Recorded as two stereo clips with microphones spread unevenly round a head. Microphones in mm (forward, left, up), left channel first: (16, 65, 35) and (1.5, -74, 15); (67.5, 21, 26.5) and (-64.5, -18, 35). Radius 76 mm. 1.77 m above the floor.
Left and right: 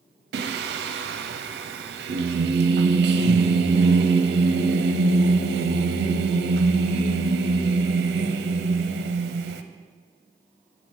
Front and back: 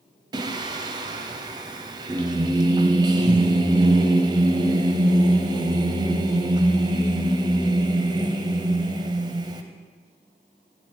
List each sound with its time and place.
0.3 s singing: 105° right, 0.6 m